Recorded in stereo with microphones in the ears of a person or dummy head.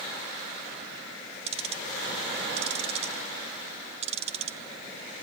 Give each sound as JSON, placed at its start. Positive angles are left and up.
{"t": 1.5, "sound": "ticking", "side_deg": -40, "distance_m": 2.0}